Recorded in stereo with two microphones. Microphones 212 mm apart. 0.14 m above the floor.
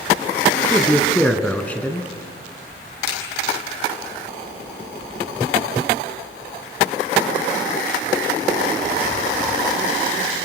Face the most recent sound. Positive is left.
turn(degrees=-50)  # may be behind; listen again after turning